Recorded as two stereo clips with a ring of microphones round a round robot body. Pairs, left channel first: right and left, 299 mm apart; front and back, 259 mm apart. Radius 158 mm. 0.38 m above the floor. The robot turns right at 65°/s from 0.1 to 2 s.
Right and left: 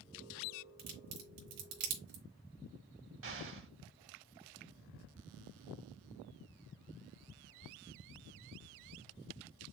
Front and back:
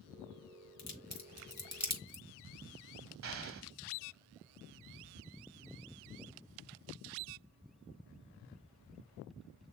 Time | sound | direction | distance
0.8 | a crack | 30° left | 3.5 m
3.2 | an explosion | 140° left | 1.0 m